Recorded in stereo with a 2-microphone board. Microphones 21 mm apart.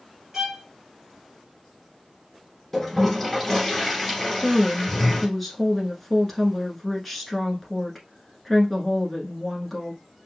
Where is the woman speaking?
5° left (ahead or behind), 1.1 m.